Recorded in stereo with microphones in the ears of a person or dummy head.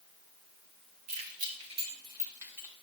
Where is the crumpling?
No crumpling in this recording.